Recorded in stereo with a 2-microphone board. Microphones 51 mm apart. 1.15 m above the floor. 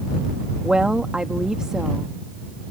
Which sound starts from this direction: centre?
A woman speaking, at 0.6 s.